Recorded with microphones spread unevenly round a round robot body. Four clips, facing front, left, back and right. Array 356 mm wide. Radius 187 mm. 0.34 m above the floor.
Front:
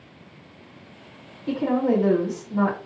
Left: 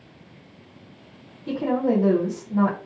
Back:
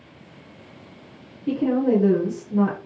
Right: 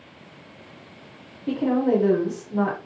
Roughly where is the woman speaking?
Behind left.